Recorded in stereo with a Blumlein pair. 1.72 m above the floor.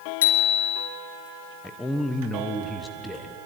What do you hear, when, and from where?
0.2 s a bicycle bell: 55° left, 3.5 m
1.6 s a man speaking: 5° left, 1.4 m